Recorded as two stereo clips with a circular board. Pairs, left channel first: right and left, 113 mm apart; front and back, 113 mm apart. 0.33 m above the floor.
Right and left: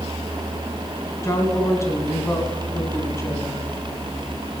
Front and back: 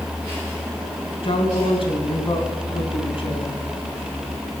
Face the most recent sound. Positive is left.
turn(degrees=-30)